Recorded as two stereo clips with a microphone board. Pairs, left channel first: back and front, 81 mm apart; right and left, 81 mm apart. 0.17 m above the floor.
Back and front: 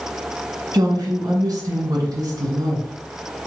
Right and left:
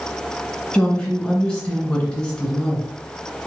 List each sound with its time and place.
0.7 s a woman speaking: 10° right, 1.7 m